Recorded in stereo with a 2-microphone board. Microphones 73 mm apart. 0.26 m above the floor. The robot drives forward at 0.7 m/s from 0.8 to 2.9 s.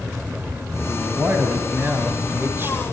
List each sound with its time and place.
0.9 s a man speaking: 25° right (ahead or behind), 2.5 m; by 3.0 s 35° right (ahead or behind), 1.8 m